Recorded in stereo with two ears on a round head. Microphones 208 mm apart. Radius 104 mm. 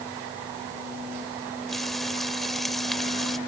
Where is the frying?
Centre (ahead or behind).